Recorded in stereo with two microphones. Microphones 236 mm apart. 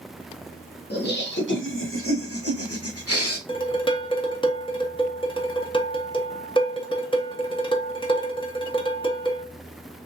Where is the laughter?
45° left (ahead or behind), 1.4 m; by 3.4 s 75° left (ahead or behind), 1.0 m.